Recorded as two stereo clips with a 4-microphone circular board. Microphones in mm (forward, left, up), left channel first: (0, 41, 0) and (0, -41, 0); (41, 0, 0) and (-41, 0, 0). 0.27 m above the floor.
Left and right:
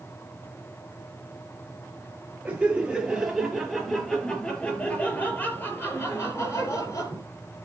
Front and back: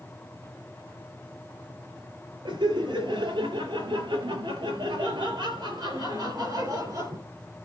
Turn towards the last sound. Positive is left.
turn(degrees=135)